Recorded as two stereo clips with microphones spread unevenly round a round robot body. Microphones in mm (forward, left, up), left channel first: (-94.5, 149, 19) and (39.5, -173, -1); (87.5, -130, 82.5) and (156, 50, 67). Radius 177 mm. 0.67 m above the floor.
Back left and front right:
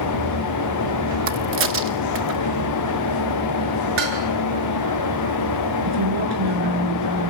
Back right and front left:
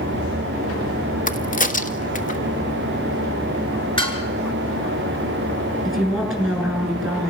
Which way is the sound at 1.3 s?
85° right.